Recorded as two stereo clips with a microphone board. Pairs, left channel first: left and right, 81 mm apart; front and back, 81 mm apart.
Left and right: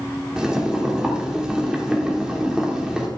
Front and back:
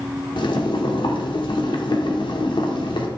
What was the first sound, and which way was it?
Boiling, 10° right.